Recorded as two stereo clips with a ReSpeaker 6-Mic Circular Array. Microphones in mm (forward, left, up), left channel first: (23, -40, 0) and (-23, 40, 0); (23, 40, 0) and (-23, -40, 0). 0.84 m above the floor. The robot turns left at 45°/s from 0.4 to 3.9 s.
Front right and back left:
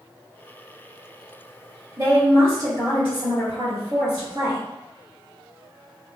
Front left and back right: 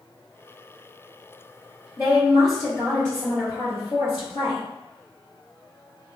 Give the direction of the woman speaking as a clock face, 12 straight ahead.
6 o'clock.